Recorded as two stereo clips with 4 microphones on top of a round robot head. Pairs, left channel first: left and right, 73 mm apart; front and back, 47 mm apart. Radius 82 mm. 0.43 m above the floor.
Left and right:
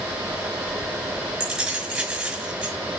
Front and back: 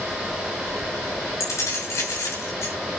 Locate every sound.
1.4 s keys jangling: 10° right, 6 m